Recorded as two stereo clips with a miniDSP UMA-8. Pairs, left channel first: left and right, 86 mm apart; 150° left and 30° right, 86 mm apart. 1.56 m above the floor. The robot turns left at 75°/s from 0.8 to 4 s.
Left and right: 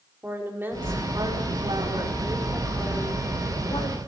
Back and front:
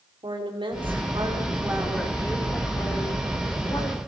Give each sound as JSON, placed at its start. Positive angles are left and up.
{"t": 0.2, "sound": "a woman speaking", "azimuth_deg": -25, "distance_m": 5.0}